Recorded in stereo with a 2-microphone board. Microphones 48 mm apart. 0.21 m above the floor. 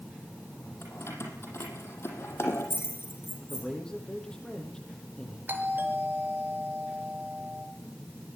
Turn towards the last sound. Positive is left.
turn(degrees=-45)  # may be behind; listen again after turning